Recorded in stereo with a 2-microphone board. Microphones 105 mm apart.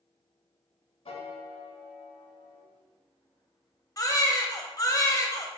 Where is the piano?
70° left (ahead or behind), 0.6 m.